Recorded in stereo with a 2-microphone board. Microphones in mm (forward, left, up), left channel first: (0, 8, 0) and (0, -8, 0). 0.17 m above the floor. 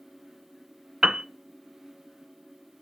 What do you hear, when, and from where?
1.0 s a piano: 45° right (ahead or behind), 0.7 m